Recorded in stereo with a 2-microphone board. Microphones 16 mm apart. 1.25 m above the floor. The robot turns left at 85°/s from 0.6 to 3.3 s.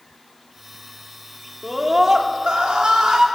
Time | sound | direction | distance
1.6 | a scream | 5° left | 4 m